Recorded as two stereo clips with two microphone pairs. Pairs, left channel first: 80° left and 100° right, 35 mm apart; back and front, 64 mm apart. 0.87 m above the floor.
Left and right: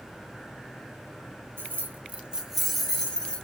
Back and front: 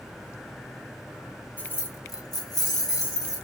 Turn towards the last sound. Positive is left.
turn(degrees=150)